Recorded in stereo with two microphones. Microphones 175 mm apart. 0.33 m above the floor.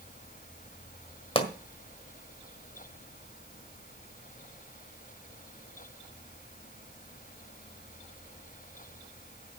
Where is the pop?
30° left (ahead or behind), 1.6 m.